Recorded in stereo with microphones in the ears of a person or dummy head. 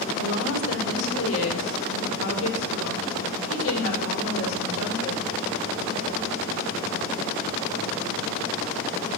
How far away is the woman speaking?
About 4 m.